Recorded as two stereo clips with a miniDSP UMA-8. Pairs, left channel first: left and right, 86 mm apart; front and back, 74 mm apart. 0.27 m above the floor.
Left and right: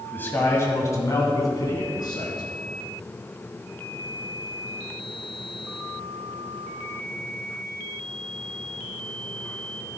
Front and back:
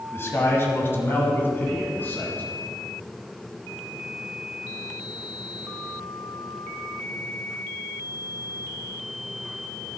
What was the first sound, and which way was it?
A man speaking, 30° left.